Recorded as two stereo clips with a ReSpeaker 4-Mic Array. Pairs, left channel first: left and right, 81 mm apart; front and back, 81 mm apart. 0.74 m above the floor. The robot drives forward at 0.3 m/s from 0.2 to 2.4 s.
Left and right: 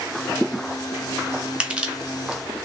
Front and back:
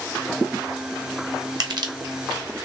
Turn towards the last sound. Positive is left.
turn(degrees=-165)